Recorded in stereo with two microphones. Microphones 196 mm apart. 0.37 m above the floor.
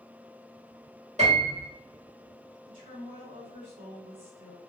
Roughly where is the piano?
Right.